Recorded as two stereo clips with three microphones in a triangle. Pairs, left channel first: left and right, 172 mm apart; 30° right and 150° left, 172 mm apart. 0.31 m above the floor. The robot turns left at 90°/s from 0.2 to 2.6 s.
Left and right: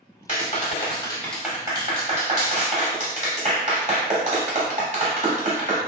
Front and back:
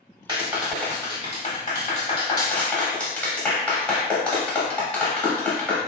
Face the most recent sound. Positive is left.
turn(degrees=-110)